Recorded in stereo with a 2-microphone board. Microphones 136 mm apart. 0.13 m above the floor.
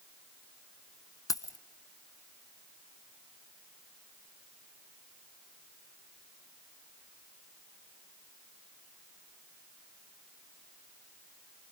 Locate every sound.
1.3 s keys jangling: 25° left (ahead or behind), 0.8 m